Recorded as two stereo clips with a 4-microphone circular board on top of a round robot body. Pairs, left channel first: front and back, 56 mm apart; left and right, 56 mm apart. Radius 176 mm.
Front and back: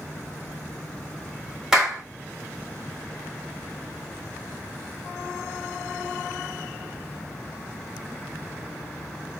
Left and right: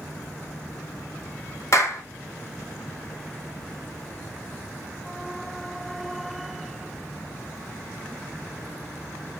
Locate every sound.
1.7 s a clap: 105° left, 1.2 m